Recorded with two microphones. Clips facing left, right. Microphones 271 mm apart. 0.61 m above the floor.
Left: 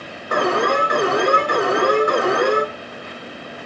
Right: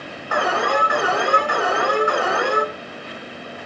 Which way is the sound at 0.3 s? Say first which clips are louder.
Left 3 dB; 45° left (ahead or behind).